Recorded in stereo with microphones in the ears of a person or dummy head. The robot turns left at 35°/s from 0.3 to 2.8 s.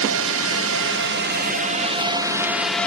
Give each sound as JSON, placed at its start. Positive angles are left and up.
{"t": 0.0, "sound": "a drone", "side_deg": -65}